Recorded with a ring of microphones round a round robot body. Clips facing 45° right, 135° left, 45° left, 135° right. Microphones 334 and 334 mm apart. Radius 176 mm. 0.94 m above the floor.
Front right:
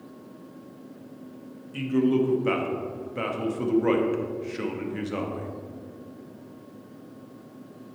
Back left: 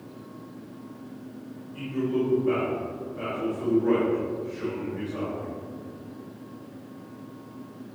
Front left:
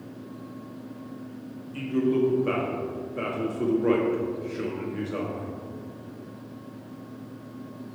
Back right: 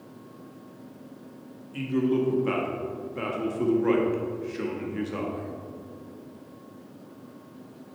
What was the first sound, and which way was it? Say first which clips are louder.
A man speaking: front right 5 dB, front left 1 dB; 55° right.